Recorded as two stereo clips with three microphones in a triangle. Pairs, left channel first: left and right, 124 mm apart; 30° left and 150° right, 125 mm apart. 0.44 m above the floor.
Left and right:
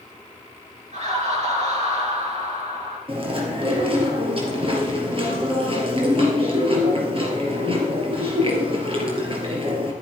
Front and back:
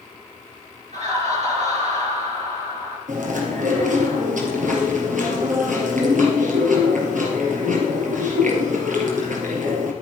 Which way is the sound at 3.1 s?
140° right.